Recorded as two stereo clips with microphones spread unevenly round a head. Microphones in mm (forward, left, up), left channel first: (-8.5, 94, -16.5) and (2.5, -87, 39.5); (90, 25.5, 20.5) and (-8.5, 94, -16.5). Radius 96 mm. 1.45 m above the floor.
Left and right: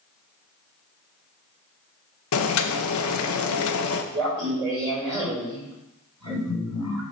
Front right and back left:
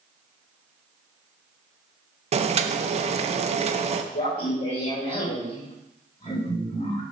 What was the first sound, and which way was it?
Boiling, 105° left.